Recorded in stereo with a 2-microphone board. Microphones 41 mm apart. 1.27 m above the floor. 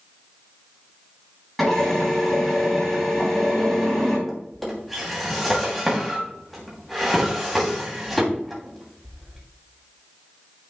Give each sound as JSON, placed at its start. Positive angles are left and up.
{"t": 1.6, "sound": "a drill", "side_deg": 5, "distance_m": 4.0}
{"t": 4.3, "sound": "a drawer", "side_deg": 0, "distance_m": 2.5}